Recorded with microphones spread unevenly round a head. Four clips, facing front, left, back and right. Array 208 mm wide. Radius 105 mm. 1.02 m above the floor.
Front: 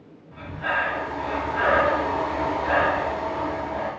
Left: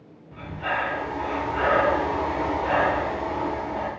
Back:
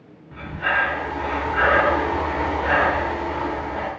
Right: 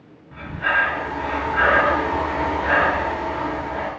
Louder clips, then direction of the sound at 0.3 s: Right 5 dB, back 3 dB; 175° right.